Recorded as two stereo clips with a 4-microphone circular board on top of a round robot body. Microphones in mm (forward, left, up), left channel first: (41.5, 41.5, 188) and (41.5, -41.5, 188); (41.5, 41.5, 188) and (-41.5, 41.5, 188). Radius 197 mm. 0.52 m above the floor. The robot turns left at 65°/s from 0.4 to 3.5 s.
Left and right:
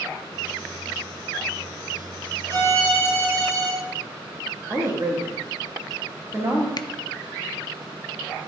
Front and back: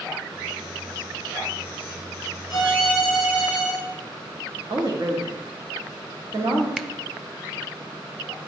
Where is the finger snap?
95° left, 0.5 m.